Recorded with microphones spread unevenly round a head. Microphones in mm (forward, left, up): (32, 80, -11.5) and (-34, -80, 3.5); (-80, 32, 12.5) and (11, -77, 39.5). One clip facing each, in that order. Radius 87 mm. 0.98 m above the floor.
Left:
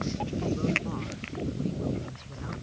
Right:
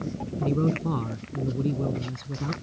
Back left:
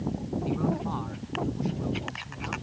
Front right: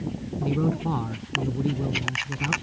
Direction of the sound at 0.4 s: 85° right.